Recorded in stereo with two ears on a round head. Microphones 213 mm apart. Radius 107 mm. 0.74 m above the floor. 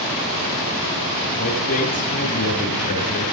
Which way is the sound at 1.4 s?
35° left (ahead or behind).